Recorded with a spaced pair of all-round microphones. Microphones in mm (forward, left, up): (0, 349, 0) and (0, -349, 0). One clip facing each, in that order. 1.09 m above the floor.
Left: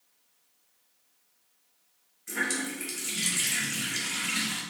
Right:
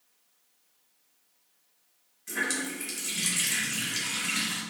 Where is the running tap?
10° right (ahead or behind), 0.8 m.